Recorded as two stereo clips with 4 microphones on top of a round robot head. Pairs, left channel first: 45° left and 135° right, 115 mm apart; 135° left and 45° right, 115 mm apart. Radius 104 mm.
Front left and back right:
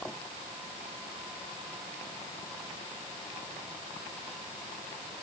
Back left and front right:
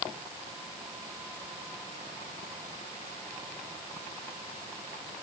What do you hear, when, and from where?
Only background noise.